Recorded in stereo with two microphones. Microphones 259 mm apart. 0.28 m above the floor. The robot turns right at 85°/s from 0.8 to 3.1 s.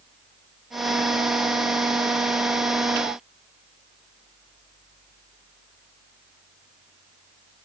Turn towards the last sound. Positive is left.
No sound to turn to.